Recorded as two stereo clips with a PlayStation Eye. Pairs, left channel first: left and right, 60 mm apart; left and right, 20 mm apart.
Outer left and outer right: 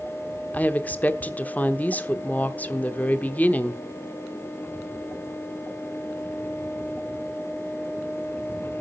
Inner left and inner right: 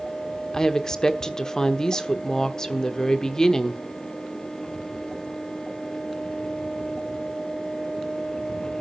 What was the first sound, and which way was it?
A woman speaking, 25° left (ahead or behind).